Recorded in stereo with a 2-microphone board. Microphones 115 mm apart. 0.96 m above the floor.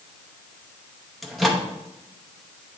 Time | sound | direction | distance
1.2 | a microwave | centre (ahead or behind) | 0.8 m